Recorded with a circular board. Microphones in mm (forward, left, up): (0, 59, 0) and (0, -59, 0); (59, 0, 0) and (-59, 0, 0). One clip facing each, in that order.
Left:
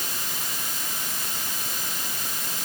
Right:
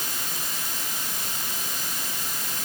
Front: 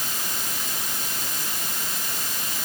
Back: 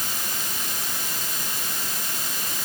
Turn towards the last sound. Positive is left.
No sound to turn to.